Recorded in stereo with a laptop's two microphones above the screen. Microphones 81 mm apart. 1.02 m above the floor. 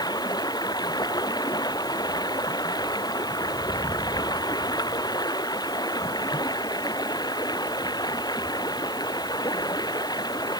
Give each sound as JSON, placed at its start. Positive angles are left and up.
{"t": 0.0, "sound": "running water", "side_deg": 55}